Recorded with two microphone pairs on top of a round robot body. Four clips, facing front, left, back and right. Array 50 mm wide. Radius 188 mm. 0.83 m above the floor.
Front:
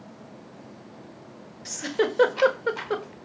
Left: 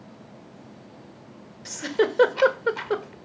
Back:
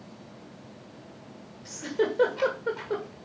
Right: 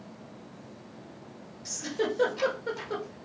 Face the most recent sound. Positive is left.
turn(degrees=50)